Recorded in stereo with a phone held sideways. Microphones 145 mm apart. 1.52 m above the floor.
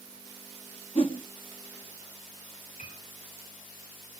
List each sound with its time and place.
0.9 s a whoosh: 40° left (ahead or behind), 1.1 m
2.8 s a piano: 60° left (ahead or behind), 7 m